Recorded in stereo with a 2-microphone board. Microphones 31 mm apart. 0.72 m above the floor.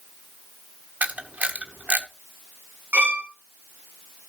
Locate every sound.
1.0 s a camera shutter: 60° right (ahead or behind), 1.1 m
2.9 s a violin: 75° right (ahead or behind), 1.9 m